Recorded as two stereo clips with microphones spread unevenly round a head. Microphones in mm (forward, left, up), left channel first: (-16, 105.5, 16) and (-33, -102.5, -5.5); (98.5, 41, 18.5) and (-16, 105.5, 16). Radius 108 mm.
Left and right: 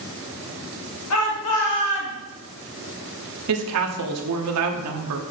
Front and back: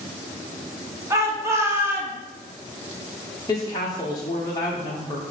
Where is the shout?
85° left, 2.5 m; by 2.2 s 75° left, 2.0 m.